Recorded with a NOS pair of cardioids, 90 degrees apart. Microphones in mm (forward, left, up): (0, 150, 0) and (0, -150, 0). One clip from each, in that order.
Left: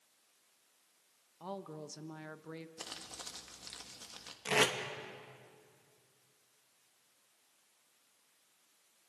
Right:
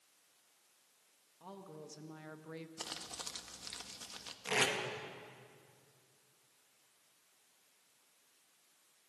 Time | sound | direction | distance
1.4 | a woman speaking | 50° left | 1.6 m
2.8 | crumpling | 10° right | 1.6 m
4.5 | tape being pulled | 25° left | 2.5 m